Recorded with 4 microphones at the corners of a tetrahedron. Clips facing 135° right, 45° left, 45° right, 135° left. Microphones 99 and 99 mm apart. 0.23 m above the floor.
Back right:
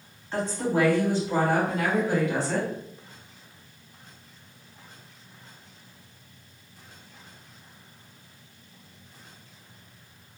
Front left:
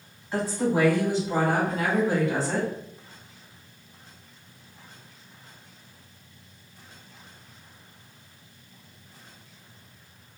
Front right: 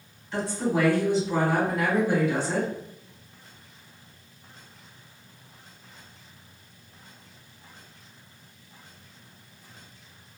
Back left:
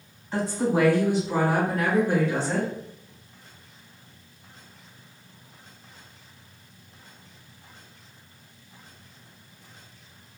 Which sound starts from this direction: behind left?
A woman speaking, at 0.3 s.